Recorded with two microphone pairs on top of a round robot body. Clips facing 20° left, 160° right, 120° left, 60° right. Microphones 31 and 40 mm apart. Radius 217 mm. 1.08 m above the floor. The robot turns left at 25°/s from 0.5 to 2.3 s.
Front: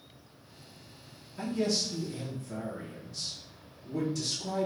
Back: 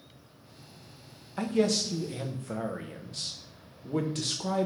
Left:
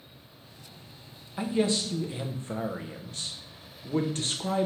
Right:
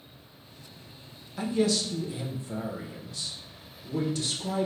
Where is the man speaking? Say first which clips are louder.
Back 4 dB, even; 170° right, 0.6 m; by 4.7 s 165° left, 0.6 m.